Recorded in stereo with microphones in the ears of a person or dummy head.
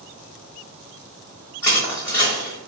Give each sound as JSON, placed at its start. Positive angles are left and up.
{"t": 1.6, "sound": "crushing", "side_deg": 10, "distance_m": 1.2}